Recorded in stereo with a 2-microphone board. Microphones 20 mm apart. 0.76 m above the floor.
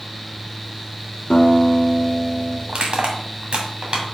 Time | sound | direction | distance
1.3 | a guitar | 60° left (ahead or behind) | 1.3 m
2.7 | crushing | 65° right (ahead or behind) | 1.9 m